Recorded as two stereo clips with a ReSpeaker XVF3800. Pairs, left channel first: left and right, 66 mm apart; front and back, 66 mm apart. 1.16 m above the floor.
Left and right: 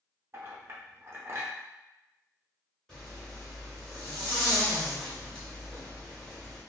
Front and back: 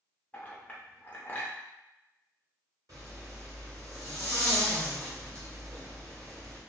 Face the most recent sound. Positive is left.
turn(degrees=170)